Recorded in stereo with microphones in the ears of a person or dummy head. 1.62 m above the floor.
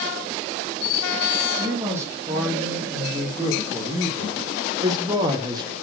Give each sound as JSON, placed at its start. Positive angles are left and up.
{"t": 1.6, "sound": "a man speaking", "side_deg": -15, "distance_m": 3.5}